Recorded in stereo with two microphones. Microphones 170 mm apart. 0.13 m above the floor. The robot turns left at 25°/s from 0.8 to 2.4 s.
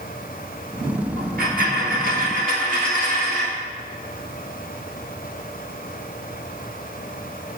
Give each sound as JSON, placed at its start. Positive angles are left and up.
{"t": 1.2, "sound": "a dropped coin", "azimuth_deg": -85, "distance_m": 1.3}